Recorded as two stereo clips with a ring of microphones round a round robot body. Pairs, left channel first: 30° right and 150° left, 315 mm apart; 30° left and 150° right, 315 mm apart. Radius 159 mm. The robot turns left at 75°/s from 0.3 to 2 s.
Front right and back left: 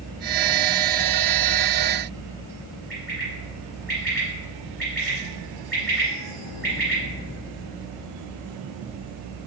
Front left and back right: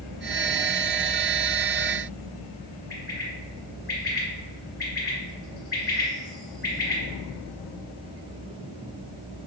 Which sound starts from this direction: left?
A bird, at 2.9 s.